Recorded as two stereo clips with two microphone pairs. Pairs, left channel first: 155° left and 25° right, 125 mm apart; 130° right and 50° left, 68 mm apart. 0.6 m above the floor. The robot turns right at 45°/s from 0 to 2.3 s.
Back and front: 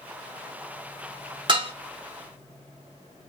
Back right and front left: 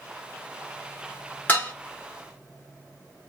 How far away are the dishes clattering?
About 0.8 m.